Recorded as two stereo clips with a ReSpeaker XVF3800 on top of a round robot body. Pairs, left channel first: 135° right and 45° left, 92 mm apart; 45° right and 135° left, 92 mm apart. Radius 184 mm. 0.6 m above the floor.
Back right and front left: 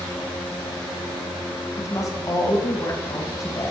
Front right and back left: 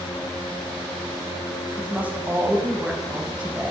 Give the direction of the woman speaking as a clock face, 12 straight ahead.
5 o'clock.